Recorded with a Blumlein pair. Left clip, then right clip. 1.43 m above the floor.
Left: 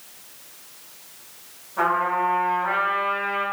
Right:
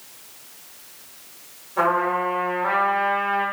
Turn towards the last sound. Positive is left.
turn(degrees=-20)